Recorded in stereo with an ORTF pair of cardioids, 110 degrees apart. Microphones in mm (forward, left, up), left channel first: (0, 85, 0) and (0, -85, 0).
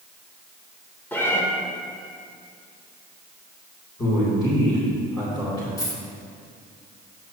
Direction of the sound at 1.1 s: 15° left.